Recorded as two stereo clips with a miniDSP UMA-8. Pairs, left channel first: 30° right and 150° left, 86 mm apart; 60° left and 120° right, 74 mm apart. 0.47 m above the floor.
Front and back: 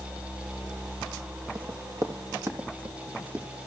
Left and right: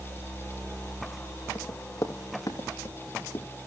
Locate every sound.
1.6 s running footsteps: 110° left, 4 m; by 3.5 s 90° left, 3.5 m